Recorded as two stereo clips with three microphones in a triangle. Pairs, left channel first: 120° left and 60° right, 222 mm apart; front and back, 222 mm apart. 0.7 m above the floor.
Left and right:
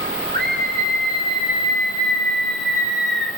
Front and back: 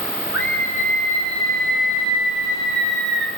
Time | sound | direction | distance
0.3 | a scream | 20° right | 5 m